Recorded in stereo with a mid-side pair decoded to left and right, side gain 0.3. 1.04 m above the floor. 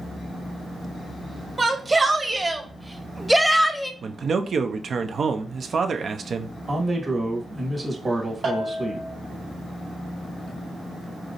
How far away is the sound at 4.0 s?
About 0.6 m.